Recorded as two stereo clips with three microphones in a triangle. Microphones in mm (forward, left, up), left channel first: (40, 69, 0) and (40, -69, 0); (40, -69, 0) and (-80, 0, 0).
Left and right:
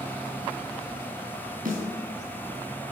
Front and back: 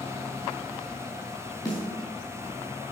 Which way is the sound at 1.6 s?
90° right.